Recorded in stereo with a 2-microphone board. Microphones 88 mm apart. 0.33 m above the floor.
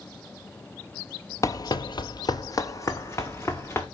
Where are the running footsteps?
35° left (ahead or behind), 0.5 m; by 3.9 s 30° left (ahead or behind), 1.6 m.